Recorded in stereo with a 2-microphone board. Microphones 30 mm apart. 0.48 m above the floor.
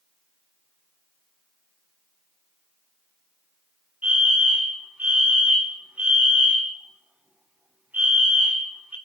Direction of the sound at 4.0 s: 55° right (ahead or behind).